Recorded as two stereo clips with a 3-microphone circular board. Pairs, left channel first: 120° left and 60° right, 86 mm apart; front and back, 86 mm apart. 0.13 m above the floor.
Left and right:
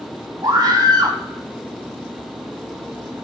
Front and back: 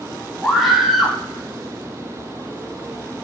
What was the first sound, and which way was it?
A scream, 95° right.